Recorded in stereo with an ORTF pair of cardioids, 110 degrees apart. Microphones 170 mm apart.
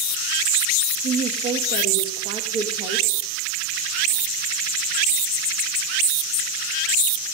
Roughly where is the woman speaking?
Right.